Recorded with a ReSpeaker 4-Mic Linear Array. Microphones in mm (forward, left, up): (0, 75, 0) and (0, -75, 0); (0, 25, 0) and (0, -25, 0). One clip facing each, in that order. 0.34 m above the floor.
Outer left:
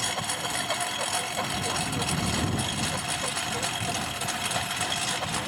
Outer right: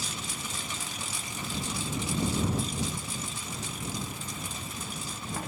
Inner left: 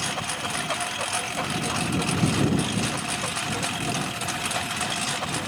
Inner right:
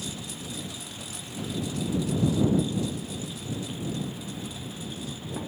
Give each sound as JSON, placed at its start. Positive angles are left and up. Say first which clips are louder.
{"t": 0.0, "sound": "a lawn mower", "louder": "outer left 7 dB, inner left 9 dB", "side_deg": 65}